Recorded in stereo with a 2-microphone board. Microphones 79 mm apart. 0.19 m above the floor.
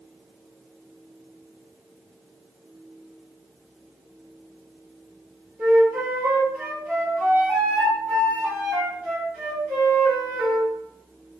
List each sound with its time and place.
5.6 s a flute: 25° right (ahead or behind), 1.4 m